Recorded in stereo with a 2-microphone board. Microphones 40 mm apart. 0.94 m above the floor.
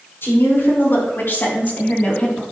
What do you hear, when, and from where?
0.2 s a woman speaking: 80° left, 4 m; by 2.4 s 30° left (ahead or behind), 2 m